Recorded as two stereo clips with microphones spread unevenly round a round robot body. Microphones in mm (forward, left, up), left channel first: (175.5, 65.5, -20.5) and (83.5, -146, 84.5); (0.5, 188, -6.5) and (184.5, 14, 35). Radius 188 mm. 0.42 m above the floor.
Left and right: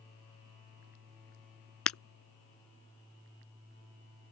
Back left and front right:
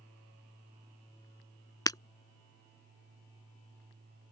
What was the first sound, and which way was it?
Breaking glass, 60° left.